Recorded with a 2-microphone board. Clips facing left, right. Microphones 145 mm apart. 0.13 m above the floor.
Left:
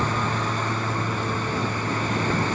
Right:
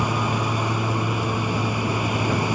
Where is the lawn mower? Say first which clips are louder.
Right 2 dB; 10° right (ahead or behind).